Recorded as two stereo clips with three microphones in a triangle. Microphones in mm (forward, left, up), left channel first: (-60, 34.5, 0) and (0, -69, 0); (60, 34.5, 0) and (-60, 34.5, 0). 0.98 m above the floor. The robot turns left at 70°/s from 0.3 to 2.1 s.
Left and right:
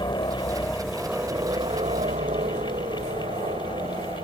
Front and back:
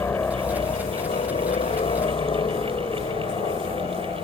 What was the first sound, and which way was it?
A helicopter, 70° left.